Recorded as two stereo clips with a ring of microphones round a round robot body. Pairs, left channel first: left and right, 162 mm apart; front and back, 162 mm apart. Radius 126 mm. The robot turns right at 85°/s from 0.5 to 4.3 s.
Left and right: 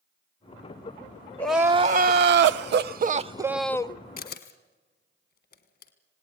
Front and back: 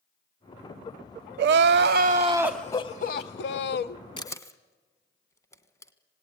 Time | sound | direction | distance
1.4 | crying | 170° left | 0.5 m
4.2 | a camera shutter | 60° left | 1.4 m